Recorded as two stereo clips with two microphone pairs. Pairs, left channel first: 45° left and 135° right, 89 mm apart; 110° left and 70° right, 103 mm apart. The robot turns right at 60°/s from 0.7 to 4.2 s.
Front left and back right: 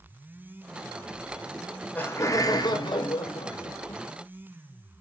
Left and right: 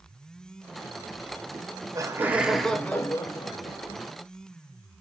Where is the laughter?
45° right, 0.7 m; by 4.0 s 105° left, 0.7 m.